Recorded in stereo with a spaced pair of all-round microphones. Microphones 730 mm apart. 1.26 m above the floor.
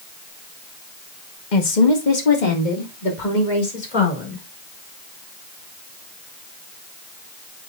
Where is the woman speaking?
75° left (ahead or behind), 1.3 m; by 4.4 s 85° left, 5 m.